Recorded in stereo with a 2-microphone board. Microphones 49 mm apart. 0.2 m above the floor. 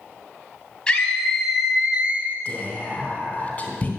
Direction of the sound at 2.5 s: 30° left (ahead or behind).